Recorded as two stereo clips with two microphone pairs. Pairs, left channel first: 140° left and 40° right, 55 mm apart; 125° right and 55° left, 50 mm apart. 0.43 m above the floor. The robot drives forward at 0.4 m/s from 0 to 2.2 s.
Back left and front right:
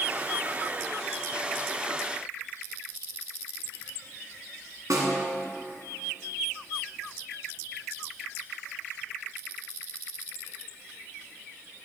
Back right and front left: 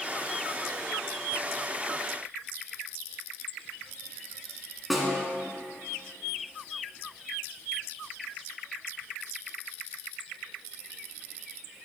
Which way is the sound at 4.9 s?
35° right.